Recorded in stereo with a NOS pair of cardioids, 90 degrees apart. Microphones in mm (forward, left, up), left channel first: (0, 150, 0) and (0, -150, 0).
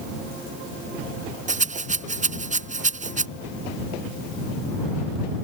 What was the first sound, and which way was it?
A rattle, 25° right.